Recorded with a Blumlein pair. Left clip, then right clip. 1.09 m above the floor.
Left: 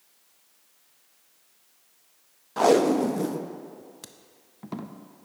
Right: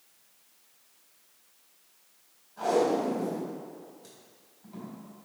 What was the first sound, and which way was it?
Tape being pulled, 45° left.